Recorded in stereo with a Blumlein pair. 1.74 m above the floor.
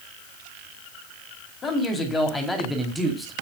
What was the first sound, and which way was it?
A man speaking, 20° left.